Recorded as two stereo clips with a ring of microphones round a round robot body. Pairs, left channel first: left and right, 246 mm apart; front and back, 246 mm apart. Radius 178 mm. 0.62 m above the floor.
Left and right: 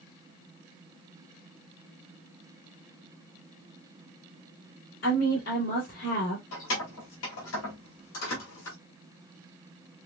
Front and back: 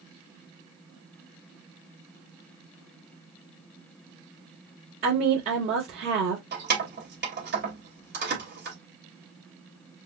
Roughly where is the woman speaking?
Behind left.